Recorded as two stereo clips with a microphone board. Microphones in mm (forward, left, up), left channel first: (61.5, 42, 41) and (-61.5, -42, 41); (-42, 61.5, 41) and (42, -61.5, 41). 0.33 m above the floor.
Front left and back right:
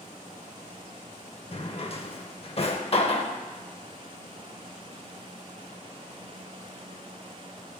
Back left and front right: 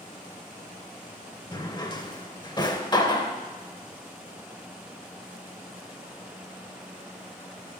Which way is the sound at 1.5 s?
70° left.